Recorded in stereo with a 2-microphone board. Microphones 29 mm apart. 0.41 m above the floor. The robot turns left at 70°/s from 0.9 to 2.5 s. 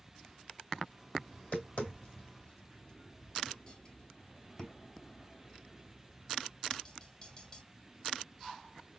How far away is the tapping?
About 2.5 m.